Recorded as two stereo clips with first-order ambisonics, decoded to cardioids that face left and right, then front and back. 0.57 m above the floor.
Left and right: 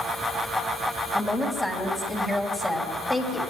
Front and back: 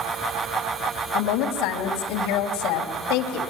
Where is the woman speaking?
10° left, 3 m.